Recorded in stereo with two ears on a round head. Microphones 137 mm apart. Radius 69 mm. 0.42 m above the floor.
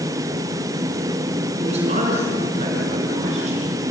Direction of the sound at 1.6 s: 45° right (ahead or behind).